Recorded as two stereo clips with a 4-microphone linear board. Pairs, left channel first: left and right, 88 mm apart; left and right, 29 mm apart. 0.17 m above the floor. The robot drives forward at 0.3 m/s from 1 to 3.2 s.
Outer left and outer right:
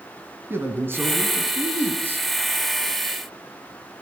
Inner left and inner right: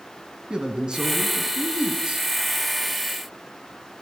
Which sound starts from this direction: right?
A man speaking, at 0.5 s.